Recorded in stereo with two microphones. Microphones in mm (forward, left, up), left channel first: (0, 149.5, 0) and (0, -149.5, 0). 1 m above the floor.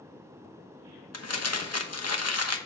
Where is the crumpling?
60° left (ahead or behind), 0.9 m.